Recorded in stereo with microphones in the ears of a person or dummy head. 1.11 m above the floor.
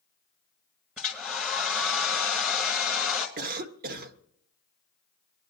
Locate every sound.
1.0 s a hair dryer: 5° right (ahead or behind), 1.6 m
3.4 s a cough: 55° right (ahead or behind), 1.0 m